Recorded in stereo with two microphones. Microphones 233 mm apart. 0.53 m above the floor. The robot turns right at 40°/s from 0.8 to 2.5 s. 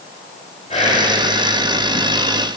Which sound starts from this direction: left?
Whispering, at 0.7 s.